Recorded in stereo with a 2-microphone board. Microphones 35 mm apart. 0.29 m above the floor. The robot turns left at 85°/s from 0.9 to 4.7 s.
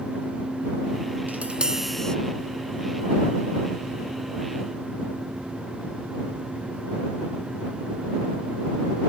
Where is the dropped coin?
I don't hear a dropped coin.